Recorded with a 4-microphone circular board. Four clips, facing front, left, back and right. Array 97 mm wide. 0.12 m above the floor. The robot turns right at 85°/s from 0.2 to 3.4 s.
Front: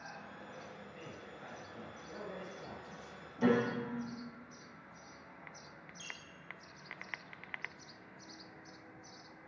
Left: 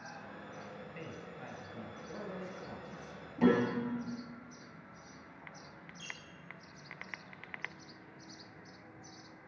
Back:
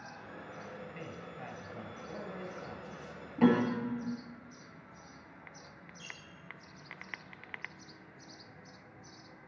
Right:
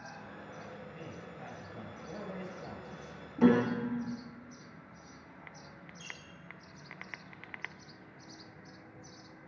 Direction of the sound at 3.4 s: 175° left.